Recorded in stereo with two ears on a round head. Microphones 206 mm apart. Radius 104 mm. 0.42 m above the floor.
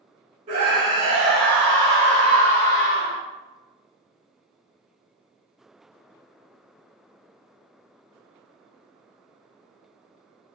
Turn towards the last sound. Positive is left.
turn(degrees=55)  # may be behind; listen again after turning